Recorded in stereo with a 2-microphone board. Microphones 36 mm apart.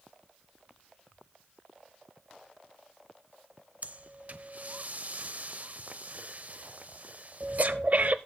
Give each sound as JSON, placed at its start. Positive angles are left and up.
{"t": 3.8, "sound": "breathing", "side_deg": -50, "distance_m": 0.5}